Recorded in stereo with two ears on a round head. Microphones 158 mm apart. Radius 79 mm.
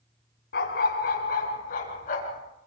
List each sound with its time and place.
0.5 s a dog barking: 60° left (ahead or behind), 3.5 m; by 2.4 s 45° left (ahead or behind), 4.5 m